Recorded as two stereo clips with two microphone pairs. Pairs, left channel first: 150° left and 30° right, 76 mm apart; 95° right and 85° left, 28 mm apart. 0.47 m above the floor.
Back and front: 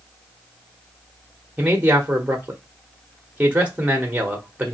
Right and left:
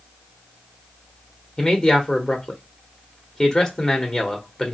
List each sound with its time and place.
1.6 s a man speaking: 70° right, 0.9 m